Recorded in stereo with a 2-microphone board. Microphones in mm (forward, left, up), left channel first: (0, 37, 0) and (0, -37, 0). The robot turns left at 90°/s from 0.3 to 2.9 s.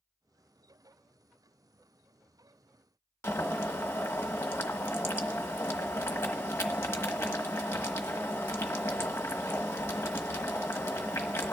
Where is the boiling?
35° left (ahead or behind), 1.1 m.